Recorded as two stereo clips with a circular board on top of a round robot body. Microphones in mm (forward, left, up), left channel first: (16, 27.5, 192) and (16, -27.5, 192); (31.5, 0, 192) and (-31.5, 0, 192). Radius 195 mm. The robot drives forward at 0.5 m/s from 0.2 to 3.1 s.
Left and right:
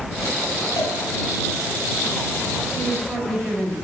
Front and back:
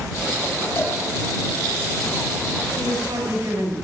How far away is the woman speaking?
About 5.5 m.